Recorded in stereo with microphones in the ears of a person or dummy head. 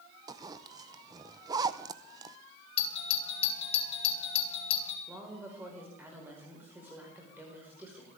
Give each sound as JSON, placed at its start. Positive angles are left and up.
{"t": 0.3, "sound": "a zipper", "side_deg": -20, "distance_m": 0.5}
{"t": 2.8, "sound": "a doorbell", "side_deg": 35, "distance_m": 3.5}
{"t": 5.1, "sound": "a woman speaking", "side_deg": -10, "distance_m": 5.0}